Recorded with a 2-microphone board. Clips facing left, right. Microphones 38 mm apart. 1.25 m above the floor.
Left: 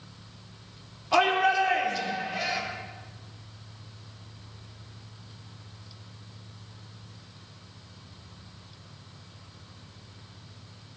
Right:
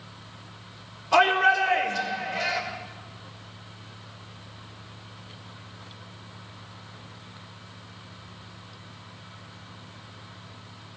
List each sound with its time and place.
1.1 s a shout: 10° left (ahead or behind), 3.5 m